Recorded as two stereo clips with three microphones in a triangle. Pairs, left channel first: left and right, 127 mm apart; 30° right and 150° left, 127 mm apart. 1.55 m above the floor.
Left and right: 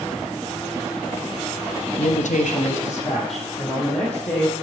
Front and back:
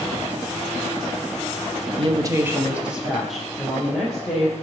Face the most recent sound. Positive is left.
turn(degrees=55)